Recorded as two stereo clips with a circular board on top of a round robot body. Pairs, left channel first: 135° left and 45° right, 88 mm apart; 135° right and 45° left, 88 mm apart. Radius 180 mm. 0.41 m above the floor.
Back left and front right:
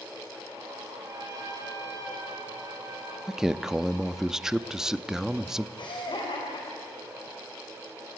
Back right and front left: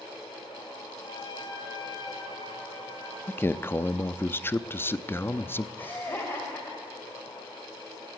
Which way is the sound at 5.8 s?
160° left.